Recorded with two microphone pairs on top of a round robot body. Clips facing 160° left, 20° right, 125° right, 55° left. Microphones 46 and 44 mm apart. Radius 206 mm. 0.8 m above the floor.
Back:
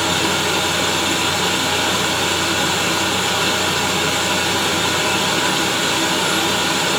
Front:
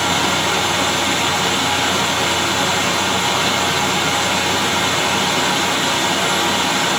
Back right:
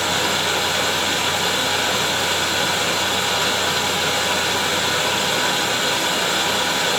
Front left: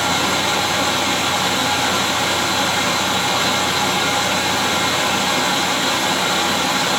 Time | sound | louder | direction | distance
0.0 | running water | front 1 dB, front left 2 dB | 25° left | 1.1 m